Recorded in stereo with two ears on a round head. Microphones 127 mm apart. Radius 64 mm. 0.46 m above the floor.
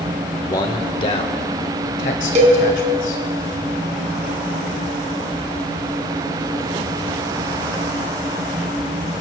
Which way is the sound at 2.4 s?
50° right (ahead or behind).